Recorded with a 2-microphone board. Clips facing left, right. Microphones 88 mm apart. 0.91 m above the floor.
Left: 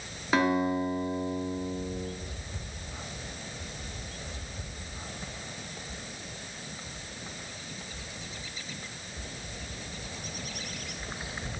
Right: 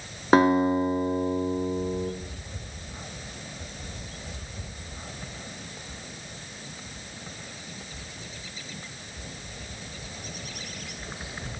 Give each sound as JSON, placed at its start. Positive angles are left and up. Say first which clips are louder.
{"t": 0.3, "sound": "a guitar", "louder": "right 6 dB", "side_deg": -35, "distance_m": 0.8}